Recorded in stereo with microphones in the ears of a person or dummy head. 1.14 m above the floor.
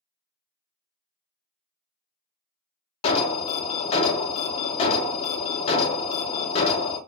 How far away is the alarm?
About 0.6 m.